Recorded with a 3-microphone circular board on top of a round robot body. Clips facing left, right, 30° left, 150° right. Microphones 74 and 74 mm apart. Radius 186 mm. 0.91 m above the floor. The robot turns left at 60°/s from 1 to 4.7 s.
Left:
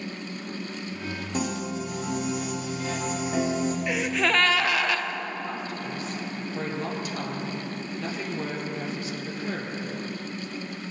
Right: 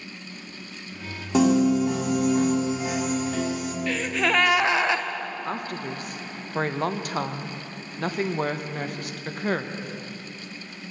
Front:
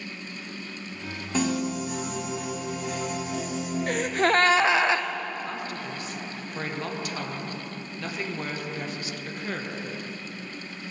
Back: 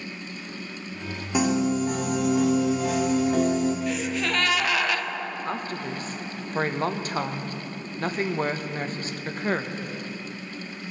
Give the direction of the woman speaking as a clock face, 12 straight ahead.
4 o'clock.